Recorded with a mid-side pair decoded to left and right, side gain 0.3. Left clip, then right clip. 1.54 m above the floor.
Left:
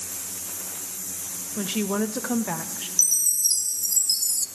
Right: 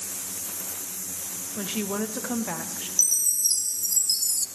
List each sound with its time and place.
1.6 s a woman speaking: 40° left, 0.7 m
3.0 s a chime: 15° left, 0.6 m